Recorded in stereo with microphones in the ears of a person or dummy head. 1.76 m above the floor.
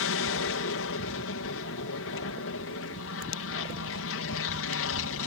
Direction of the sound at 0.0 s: 65° left (ahead or behind).